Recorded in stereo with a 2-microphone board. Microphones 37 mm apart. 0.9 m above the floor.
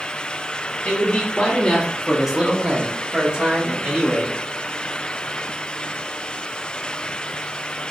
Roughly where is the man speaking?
Left.